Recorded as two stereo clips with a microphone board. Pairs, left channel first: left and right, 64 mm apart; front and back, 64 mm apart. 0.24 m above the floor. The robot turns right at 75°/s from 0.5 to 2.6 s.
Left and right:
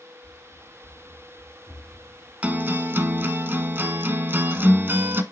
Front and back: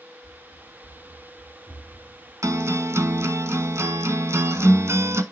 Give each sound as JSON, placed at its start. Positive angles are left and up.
{"t": 0.2, "sound": "running footsteps", "azimuth_deg": 40, "distance_m": 6.0}
{"t": 2.4, "sound": "a guitar", "azimuth_deg": -160, "distance_m": 0.9}